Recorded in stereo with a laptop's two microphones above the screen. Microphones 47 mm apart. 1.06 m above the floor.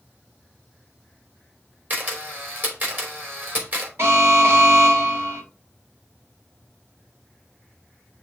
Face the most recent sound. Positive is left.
turn(degrees=-65)  # may be behind; listen again after turning